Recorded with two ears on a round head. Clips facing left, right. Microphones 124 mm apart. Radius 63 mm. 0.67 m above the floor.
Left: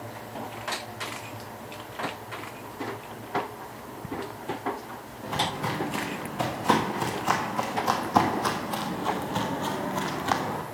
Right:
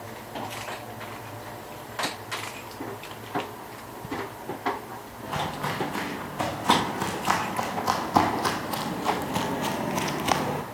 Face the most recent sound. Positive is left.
turn(degrees=-20)  # may be behind; listen again after turning